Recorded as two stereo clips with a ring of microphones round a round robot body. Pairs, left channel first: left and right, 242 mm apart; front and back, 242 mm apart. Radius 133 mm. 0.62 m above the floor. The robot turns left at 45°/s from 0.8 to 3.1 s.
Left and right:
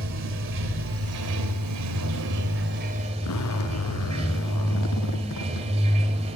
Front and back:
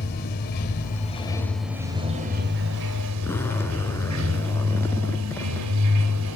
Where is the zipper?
80° left, 1.5 m.